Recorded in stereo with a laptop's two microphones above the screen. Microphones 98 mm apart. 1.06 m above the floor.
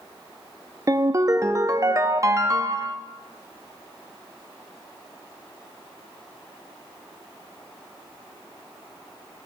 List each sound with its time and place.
0.9 s a ringtone: 35° right (ahead or behind), 0.5 m